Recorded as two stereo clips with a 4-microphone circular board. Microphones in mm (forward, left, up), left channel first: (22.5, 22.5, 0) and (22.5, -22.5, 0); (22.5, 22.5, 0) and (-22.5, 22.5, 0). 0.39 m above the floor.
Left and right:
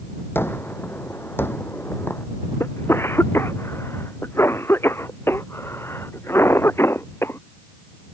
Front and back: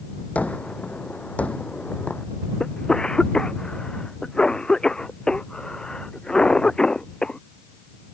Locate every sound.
0.3 s a gunshot: 55° left
2.6 s a cough: 70° left